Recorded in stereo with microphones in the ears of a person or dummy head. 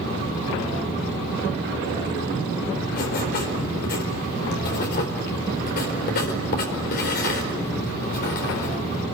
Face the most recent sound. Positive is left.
turn(degrees=55)  # may be behind; listen again after turning